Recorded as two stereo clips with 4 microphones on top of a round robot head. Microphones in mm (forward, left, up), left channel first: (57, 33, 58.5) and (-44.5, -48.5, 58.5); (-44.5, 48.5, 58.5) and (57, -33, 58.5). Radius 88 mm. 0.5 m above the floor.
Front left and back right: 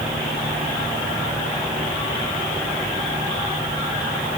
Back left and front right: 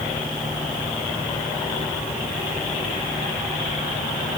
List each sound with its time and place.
Only background noise.